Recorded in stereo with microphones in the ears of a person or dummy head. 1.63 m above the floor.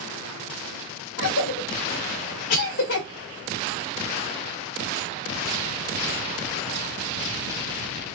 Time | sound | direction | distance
1.2 | a cough | 70° left (ahead or behind) | 0.7 m